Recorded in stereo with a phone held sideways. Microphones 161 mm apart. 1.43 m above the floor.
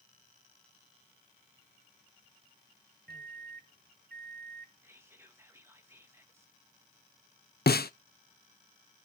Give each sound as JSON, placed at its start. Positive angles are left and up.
{"t": 3.1, "sound": "a microwave", "side_deg": -85, "distance_m": 0.7}
{"t": 4.8, "sound": "whispering", "side_deg": -15, "distance_m": 2.0}
{"t": 7.7, "sound": "a snare drum", "side_deg": 80, "distance_m": 0.7}